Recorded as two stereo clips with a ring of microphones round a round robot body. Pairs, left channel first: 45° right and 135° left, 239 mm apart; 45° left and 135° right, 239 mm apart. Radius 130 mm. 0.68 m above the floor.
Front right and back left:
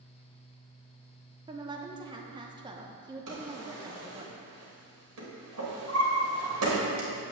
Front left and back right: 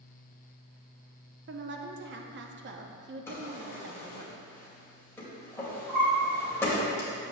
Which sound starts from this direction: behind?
A woman speaking, at 1.5 s.